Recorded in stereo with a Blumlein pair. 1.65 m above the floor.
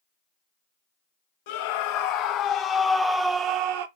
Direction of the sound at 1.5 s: 50° left.